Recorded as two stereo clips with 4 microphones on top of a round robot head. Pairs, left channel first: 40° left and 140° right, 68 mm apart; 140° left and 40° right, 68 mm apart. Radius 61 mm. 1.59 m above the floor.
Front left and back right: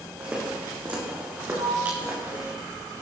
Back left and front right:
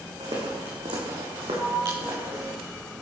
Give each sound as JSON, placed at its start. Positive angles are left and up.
{"t": 0.2, "sound": "footsteps", "azimuth_deg": -70, "distance_m": 6.0}
{"t": 1.5, "sound": "a sliding door", "azimuth_deg": -130, "distance_m": 5.0}